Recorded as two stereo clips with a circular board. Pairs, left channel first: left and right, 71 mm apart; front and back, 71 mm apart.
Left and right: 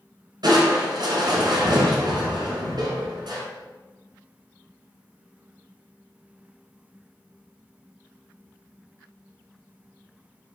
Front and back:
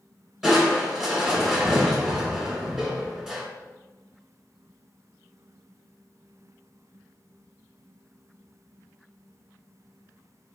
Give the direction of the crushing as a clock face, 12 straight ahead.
3 o'clock.